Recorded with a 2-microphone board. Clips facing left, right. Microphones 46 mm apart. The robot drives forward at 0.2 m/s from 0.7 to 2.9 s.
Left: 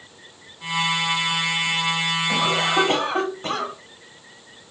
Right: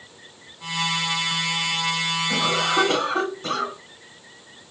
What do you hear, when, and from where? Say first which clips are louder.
2.3 s a cough: left 1 dB; 35° left (ahead or behind), 1.5 m